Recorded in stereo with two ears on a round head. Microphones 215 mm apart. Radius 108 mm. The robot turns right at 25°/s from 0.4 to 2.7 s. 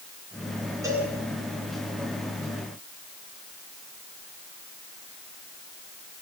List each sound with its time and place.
0.8 s a cowbell: 15° right (ahead or behind), 9 m; by 1.1 s 20° right (ahead or behind), 9 m